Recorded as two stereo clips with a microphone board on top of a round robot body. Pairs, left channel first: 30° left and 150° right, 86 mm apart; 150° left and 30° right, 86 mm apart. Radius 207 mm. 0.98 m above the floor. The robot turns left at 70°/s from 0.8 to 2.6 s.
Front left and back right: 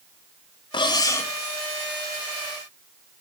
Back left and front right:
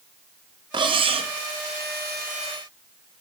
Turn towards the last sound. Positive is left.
turn(degrees=-125)